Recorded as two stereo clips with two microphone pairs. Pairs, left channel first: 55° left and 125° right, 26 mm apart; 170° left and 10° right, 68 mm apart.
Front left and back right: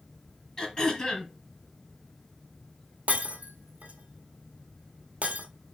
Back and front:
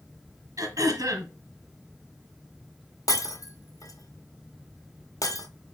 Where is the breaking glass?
155° right, 0.9 m.